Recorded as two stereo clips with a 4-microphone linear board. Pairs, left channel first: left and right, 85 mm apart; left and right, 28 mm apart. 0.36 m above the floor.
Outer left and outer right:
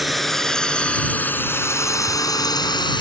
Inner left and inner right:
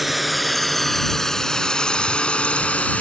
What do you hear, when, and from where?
0.0 s a drone: centre (ahead or behind); by 3.0 s 65° left (ahead or behind)